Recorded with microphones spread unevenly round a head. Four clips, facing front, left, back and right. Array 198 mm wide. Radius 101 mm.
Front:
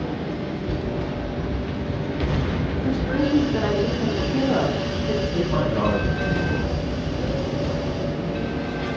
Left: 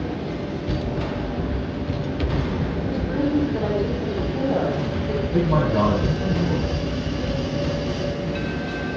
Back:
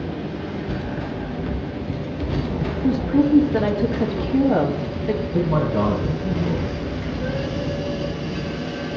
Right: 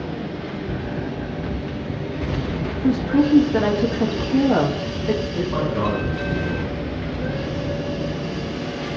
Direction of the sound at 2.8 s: 130° right.